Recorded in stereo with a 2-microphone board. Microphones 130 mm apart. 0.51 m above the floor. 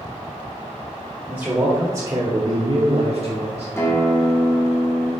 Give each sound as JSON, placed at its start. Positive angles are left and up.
{"t": 1.3, "sound": "a man speaking", "side_deg": -10, "distance_m": 1.5}
{"t": 3.8, "sound": "a guitar", "side_deg": 20, "distance_m": 1.2}